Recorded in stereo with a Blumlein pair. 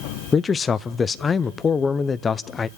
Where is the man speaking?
20° left, 0.5 m.